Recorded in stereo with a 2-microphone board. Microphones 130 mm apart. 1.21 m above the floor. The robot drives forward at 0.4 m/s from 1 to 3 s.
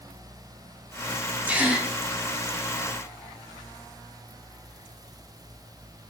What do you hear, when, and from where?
1.5 s a gasp: 10° right (ahead or behind), 1.5 m; by 1.9 s 15° right (ahead or behind), 1.4 m